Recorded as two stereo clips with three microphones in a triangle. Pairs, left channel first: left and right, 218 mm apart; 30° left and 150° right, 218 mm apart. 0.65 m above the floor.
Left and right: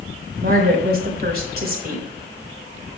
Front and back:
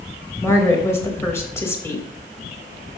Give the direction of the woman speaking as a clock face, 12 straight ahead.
2 o'clock.